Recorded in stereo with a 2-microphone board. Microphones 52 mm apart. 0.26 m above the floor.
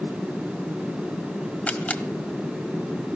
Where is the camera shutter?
25° left (ahead or behind), 1.4 m.